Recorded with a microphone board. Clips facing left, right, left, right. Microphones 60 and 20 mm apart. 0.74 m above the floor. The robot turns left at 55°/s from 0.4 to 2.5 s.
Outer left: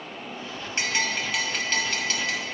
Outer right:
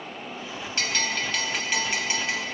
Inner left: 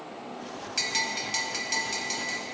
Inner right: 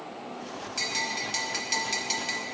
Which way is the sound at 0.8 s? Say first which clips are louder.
Outer left 1 dB, inner left 1 dB; 35° left.